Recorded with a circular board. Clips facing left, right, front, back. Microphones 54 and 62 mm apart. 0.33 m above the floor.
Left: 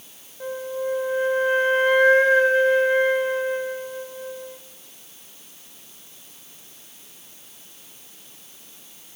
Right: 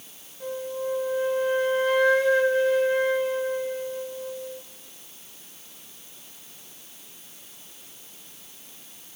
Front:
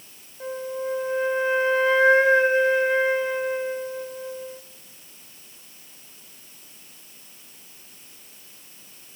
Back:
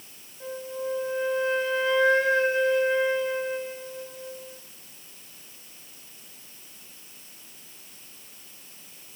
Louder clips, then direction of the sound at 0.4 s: Left 3 dB, front 3 dB; 60° left.